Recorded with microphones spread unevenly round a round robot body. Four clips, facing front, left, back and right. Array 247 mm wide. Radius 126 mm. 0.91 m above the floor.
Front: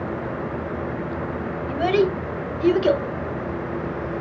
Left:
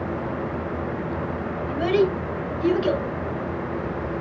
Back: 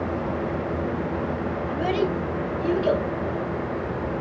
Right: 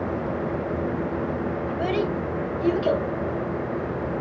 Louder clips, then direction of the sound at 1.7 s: Left 7 dB, front 6 dB; 15° left.